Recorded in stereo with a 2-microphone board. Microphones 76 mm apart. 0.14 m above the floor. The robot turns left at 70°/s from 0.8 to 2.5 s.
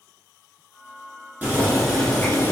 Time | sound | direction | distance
1.4 | boiling | 145° right | 1.2 m